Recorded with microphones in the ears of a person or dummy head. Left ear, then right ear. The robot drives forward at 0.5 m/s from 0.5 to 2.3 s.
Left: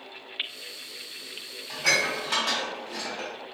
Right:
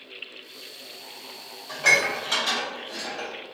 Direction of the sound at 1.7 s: 50° right (ahead or behind).